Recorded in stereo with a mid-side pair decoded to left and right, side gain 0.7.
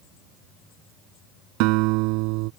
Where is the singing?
No singing in this recording.